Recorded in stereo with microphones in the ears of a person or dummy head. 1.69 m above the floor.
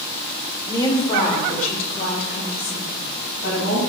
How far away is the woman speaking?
About 1.2 m.